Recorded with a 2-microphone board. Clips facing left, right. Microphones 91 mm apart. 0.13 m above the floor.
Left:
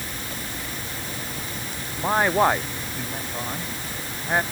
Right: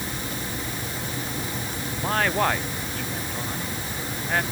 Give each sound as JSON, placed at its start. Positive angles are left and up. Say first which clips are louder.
{"t": 2.0, "sound": "a man speaking", "louder": "left 4 dB", "side_deg": 20}